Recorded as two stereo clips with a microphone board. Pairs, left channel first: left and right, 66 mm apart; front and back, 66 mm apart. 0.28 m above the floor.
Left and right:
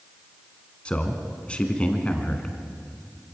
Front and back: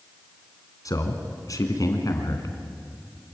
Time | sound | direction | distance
0.8 | a man speaking | 20° left | 3 m